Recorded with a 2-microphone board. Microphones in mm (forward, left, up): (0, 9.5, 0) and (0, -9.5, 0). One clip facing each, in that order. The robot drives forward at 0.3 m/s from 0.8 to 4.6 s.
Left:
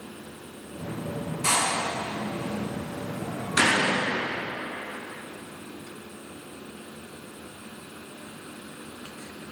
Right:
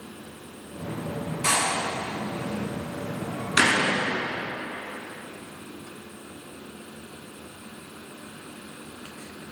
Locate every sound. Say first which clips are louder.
1.4 s a door slam: even; 25° right (ahead or behind), 3.5 m; by 4.1 s 30° right (ahead or behind), 2.5 m